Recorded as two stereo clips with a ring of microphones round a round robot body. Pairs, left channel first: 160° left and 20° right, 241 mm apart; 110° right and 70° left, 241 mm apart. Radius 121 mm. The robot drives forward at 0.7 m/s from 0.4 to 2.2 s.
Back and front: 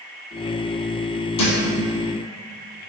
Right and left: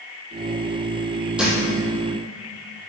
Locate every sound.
1.4 s a thud: 155° left, 2 m